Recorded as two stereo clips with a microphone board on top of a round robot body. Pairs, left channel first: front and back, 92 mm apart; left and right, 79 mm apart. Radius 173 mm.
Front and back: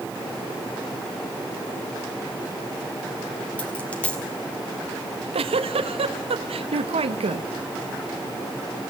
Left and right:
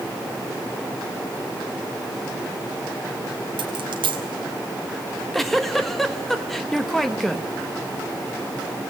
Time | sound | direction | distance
3.6 | a dropped coin | 75° right | 1.5 m
5.0 | a giggle | 175° left | 1.1 m